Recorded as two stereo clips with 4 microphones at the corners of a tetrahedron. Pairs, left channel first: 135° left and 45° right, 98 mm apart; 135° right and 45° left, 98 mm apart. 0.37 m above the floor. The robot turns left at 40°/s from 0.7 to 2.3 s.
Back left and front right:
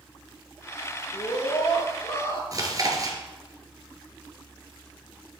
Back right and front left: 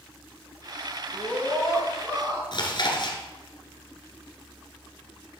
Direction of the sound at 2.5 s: 95° right.